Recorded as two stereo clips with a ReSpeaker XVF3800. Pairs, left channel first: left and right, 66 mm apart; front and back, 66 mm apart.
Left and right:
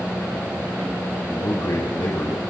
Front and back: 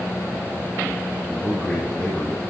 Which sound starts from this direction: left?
A man speaking, at 1.3 s.